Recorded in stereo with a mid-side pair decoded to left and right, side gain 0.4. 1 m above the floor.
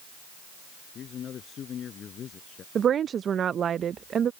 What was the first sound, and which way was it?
A man speaking, 65° left.